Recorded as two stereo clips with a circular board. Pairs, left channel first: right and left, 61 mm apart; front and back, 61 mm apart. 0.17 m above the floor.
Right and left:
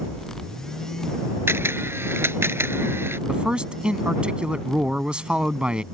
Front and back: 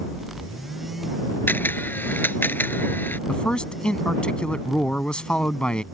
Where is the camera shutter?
50° left.